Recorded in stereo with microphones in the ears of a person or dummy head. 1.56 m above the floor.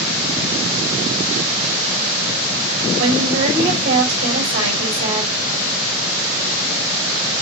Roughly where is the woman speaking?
Right.